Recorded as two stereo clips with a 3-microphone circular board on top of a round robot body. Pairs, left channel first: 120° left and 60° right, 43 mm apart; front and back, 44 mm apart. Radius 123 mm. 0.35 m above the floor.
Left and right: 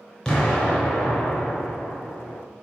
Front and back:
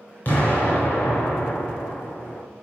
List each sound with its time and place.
0.2 s an explosion: 45° left, 3 m